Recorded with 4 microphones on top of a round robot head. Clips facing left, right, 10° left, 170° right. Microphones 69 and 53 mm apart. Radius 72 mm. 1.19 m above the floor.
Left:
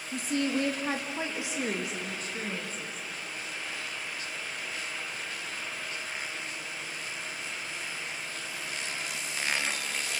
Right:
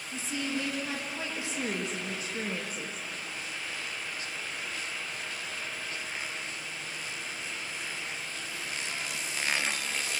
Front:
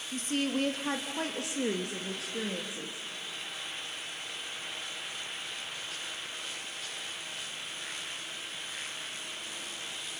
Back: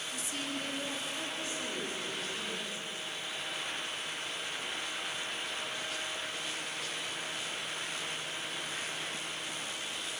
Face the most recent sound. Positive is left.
turn(degrees=-20)